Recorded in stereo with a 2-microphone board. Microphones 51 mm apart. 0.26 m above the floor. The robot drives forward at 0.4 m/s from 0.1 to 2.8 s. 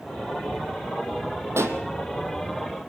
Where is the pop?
60° right (ahead or behind), 2.5 m; by 1.8 s 55° right (ahead or behind), 2.5 m.